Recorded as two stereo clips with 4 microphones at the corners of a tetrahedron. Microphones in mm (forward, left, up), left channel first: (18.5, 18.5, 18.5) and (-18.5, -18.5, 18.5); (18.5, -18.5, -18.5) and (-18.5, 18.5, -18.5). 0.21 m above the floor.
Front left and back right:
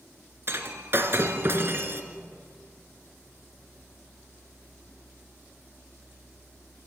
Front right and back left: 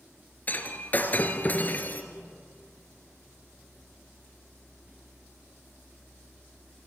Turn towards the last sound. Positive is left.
turn(degrees=-100)